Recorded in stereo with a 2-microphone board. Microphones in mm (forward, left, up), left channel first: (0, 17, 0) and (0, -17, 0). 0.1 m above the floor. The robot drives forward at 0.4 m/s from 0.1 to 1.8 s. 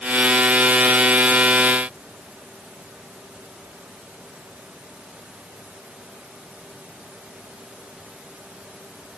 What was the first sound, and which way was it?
Only background noise.